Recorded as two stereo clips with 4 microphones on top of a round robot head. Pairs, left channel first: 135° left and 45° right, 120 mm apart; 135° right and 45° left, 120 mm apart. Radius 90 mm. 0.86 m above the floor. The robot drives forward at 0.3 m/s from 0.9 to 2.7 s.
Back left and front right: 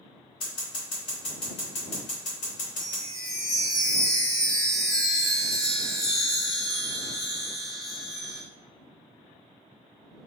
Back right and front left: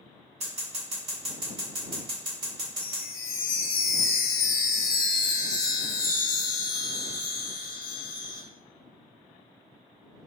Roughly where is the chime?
Behind right.